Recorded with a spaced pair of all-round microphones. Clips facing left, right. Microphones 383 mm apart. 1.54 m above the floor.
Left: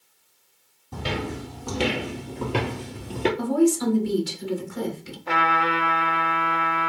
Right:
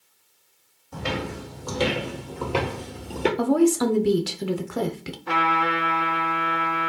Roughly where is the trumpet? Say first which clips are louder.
Even; right.